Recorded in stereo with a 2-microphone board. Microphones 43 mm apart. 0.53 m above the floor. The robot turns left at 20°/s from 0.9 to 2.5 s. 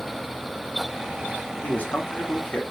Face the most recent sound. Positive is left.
turn(degrees=40)  # may be behind; listen again after turning